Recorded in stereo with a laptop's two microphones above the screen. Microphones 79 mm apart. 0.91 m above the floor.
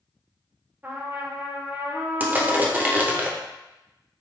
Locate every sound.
0.8 s a trumpet: 25° right (ahead or behind), 0.7 m
2.2 s crushing: 20° right (ahead or behind), 0.5 m